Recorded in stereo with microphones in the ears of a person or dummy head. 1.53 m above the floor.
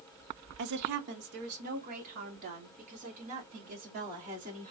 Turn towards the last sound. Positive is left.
turn(degrees=-40)  # may be behind; listen again after turning